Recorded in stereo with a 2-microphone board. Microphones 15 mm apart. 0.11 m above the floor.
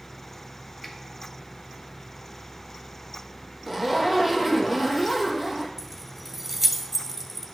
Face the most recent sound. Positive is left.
turn(degrees=-15)  # may be behind; listen again after turning